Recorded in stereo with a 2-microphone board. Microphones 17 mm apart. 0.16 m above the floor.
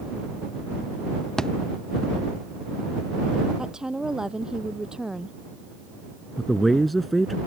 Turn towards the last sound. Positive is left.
turn(degrees=0)  # may be behind; listen again after turning